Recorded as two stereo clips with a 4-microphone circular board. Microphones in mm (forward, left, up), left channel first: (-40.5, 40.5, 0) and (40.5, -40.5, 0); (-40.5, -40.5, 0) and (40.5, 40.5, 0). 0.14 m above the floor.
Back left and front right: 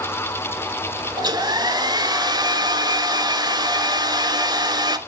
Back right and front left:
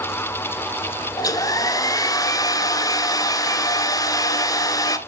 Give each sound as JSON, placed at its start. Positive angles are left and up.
{"t": 1.2, "sound": "a hair dryer", "azimuth_deg": -85, "distance_m": 0.8}